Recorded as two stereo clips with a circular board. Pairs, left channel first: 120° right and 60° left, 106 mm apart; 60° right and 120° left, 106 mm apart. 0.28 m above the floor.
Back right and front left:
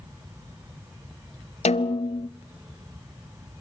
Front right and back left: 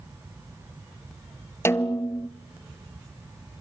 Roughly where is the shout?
I don't hear a shout.